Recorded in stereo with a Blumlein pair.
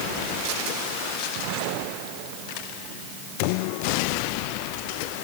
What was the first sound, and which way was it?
Only background noise.